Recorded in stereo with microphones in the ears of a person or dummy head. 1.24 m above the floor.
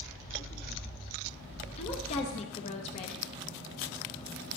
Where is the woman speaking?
35° left (ahead or behind), 0.8 m.